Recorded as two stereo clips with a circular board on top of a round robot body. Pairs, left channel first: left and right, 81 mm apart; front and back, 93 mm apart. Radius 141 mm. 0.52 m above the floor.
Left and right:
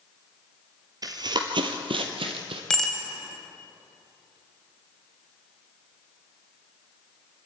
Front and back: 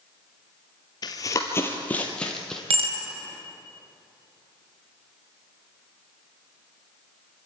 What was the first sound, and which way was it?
Running footsteps, 45° right.